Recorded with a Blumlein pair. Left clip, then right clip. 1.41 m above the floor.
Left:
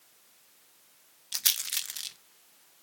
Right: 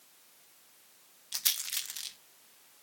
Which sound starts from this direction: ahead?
A rattle, at 1.3 s.